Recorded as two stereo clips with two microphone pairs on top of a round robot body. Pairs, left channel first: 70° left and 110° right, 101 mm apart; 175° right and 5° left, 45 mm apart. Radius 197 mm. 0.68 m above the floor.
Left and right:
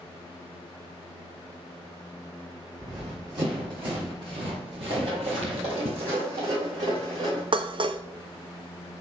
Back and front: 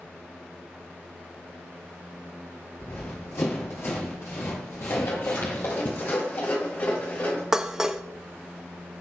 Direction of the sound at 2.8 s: 155° right.